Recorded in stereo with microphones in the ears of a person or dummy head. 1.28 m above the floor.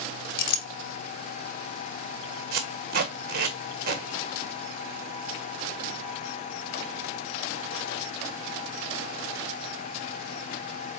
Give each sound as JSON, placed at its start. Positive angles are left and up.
{"t": 0.4, "sound": "a clink", "side_deg": 65, "distance_m": 0.9}
{"t": 2.5, "sound": "tape being pulled", "side_deg": -40, "distance_m": 1.1}